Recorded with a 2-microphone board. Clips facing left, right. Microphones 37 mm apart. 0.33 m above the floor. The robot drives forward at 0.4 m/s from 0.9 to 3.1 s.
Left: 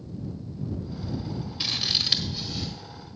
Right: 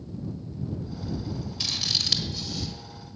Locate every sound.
1.6 s scissors: 20° left (ahead or behind), 1.1 m; by 2.7 s 15° left (ahead or behind), 1.4 m